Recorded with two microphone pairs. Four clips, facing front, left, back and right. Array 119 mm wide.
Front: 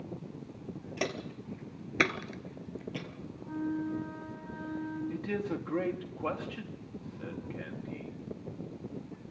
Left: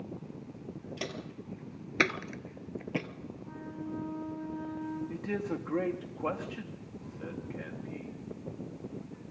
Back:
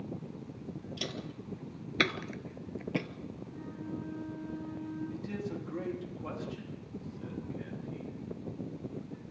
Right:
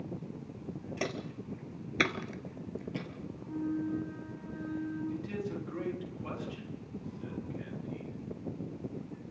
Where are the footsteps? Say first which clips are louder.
Right 5 dB, front 4 dB; 20° right, 2.5 m; by 3.1 s 135° left, 2 m.